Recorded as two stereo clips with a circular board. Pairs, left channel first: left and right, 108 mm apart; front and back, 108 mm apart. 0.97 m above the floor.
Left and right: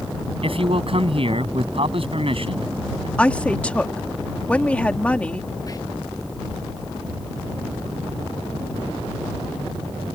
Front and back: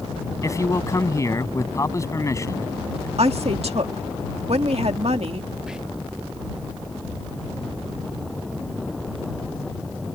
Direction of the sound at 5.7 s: 100° left.